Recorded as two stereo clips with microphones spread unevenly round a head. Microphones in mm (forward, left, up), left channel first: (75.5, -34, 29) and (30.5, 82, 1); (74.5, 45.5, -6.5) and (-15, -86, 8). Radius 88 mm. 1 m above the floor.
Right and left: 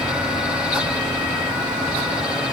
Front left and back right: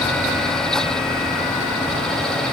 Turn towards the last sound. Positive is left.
No sound to turn to.